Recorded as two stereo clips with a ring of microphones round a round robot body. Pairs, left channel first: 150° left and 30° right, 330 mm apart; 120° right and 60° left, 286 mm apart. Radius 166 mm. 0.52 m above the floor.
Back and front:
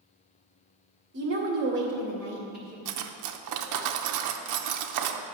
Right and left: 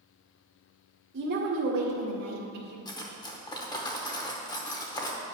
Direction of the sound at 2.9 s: 45° right.